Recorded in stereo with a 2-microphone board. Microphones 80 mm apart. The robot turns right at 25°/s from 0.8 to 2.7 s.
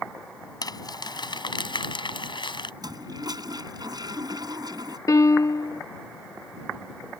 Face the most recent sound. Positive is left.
turn(degrees=45)  # may be behind; listen again after turning